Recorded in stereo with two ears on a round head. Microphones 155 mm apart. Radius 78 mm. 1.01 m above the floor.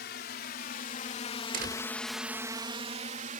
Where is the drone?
65° left (ahead or behind); by 3.4 s 50° right (ahead or behind).